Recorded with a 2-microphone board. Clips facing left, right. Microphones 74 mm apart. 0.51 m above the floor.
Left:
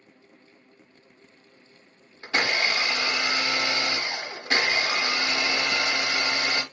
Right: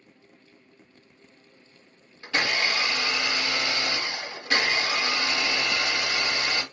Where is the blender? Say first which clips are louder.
Left 1 dB; 25° left (ahead or behind), 1.0 m.